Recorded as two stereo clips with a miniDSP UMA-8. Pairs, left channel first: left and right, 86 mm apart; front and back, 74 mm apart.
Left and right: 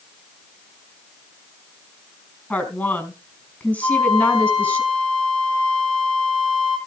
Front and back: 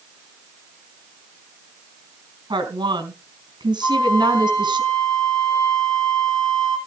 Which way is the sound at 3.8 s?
60° left.